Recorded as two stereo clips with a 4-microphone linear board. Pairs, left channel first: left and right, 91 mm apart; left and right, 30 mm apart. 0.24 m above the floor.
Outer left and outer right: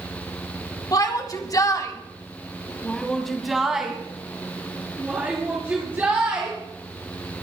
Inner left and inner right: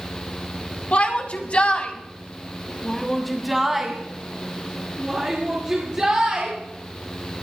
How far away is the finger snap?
No finger snap in this recording.